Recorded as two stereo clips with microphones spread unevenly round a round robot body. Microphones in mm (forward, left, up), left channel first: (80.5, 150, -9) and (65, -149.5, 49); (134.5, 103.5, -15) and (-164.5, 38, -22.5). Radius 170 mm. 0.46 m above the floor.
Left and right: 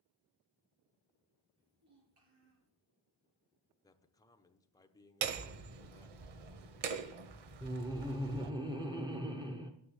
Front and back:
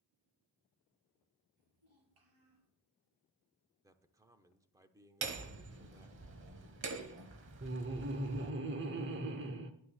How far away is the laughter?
About 0.8 m.